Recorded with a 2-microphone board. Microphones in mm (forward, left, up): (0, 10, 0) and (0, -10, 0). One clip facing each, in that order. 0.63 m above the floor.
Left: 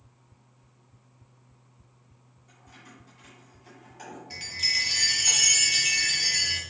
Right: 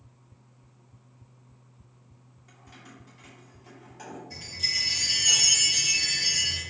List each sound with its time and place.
2.5 s keys jangling: 30° right (ahead or behind), 0.9 m; by 4.2 s 5° left (ahead or behind), 1.6 m
4.3 s a chime: 50° left (ahead or behind), 1.2 m